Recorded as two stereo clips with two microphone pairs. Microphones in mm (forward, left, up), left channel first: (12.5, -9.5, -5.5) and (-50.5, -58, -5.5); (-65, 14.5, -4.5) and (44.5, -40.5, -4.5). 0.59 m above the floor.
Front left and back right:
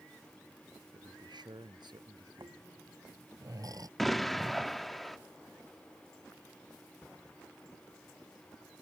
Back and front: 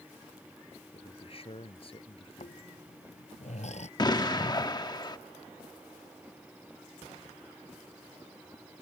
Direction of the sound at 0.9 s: 165° right.